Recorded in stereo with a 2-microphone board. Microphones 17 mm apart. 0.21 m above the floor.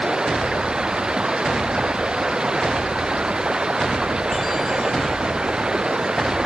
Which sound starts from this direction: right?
Running water, at 0.0 s.